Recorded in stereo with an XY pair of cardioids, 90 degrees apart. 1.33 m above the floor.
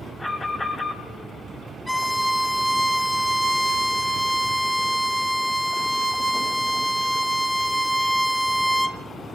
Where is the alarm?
20° left, 6.5 m.